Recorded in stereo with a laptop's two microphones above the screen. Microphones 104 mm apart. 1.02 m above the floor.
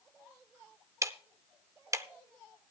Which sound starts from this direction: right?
Ticking, at 1.0 s.